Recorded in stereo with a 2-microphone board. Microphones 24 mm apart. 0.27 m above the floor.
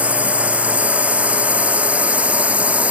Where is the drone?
85° right.